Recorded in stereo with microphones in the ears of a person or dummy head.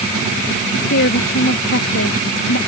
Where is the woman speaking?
60° left (ahead or behind).